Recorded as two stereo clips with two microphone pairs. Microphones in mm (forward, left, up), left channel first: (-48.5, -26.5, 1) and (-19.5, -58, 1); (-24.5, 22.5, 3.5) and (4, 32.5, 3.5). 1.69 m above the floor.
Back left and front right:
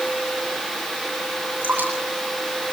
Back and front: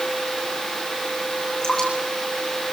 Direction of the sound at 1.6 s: 90° right.